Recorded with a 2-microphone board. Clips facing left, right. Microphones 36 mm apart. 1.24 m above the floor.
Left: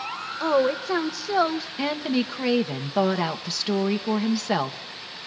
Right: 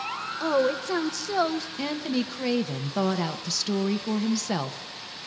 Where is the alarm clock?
No alarm clock in this recording.